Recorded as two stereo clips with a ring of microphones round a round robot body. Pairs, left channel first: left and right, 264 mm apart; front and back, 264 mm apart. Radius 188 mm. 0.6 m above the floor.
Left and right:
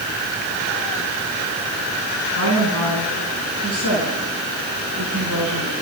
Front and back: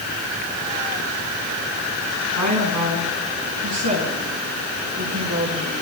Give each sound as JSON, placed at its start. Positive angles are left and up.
{"t": 2.4, "sound": "a woman speaking", "azimuth_deg": -150, "distance_m": 6.5}